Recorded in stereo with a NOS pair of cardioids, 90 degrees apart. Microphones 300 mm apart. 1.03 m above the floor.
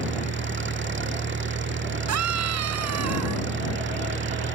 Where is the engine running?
40° right.